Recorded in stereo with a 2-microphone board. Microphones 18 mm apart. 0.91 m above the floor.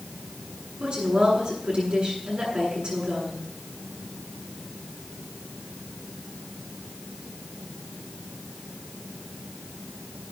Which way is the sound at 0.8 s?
55° right (ahead or behind).